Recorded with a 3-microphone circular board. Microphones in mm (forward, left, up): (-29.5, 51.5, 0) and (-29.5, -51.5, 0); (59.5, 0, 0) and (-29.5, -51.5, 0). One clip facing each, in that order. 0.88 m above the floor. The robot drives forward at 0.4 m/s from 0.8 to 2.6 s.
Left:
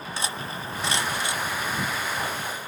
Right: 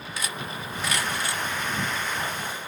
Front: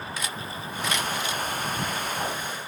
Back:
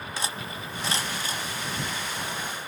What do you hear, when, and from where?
0.2 s cutlery clinking: 150° left; by 2.7 s 165° left